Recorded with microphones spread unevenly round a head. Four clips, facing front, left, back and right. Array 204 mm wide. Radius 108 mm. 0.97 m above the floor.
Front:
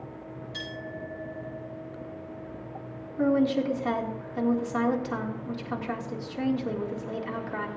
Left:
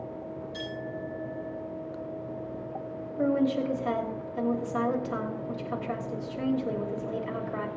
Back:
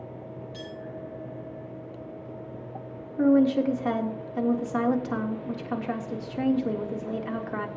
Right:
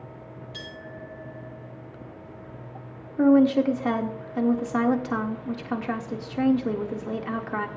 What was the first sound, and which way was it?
A clink, 50° right.